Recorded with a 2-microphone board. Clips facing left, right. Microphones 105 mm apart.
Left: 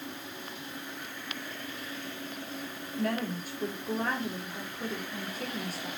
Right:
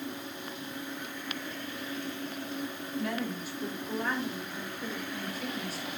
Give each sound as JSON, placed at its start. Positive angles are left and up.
{"t": 3.0, "sound": "a woman speaking", "side_deg": 50, "distance_m": 6.5}